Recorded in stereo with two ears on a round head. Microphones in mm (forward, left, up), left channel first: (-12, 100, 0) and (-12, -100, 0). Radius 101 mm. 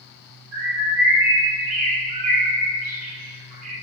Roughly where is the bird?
Right.